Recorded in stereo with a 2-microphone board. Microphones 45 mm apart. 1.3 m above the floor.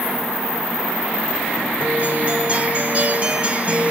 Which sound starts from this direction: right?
A guitar, at 1.8 s.